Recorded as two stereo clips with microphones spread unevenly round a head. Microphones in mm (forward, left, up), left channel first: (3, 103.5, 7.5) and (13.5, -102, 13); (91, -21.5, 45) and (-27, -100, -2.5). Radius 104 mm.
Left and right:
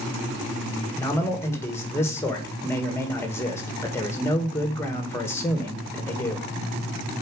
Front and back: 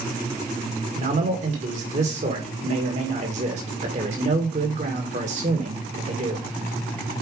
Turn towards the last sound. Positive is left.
turn(degrees=170)